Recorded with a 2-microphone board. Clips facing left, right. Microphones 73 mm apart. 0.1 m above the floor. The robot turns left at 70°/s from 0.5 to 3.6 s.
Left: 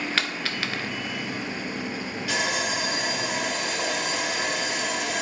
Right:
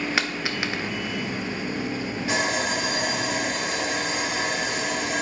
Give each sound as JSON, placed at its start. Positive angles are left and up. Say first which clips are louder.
{"t": 0.2, "sound": "a dropped coin", "louder": "right 2 dB", "side_deg": -15, "distance_m": 0.7}
{"t": 2.3, "sound": "sawing", "louder": "right 2 dB", "azimuth_deg": -40, "distance_m": 1.8}